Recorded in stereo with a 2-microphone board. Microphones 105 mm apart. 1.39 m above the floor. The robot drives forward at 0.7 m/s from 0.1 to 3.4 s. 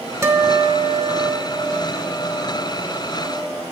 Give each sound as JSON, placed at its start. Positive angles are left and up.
{"t": 0.2, "sound": "a guitar", "side_deg": -25, "distance_m": 1.3}